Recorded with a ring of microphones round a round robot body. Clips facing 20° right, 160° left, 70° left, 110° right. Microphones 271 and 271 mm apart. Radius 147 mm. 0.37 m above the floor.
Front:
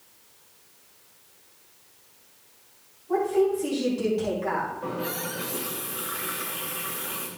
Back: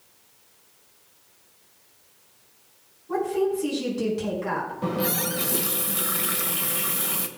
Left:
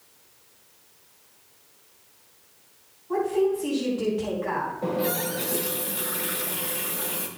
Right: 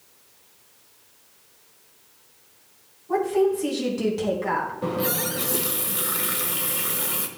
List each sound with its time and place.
3.1 s a woman speaking: 135° right, 4.5 m
4.8 s a running tap: straight behind, 1.3 m